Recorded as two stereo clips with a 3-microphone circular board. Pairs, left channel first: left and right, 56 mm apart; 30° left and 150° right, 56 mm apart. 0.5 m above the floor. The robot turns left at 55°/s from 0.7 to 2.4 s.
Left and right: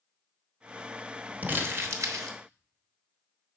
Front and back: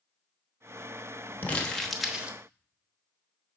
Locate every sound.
1.4 s crumpling: 30° right, 1.0 m; by 2.4 s 80° right, 1.0 m